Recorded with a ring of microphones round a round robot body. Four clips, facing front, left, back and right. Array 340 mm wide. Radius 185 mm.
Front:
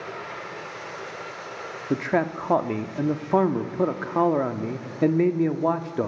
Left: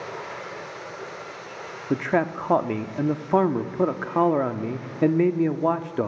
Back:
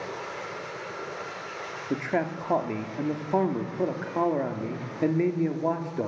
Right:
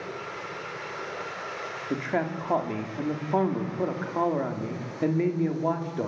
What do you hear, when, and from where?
1.9 s a man speaking: 55° left, 1.4 m